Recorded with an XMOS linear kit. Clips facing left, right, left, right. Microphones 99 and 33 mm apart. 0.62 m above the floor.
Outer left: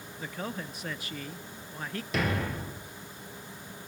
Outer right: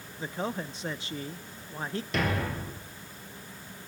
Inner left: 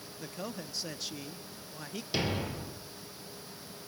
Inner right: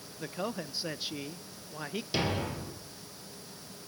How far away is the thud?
About 2.5 m.